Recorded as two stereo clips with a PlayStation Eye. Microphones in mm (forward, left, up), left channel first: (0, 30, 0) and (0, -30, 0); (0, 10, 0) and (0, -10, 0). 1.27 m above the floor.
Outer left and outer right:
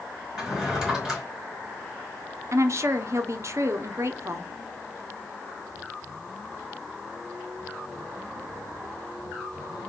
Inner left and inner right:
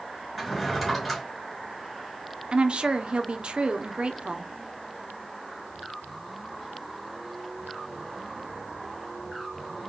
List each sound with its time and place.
0.4 s a drawer: 5° right (ahead or behind), 3 m
2.5 s a woman speaking: 50° right (ahead or behind), 0.6 m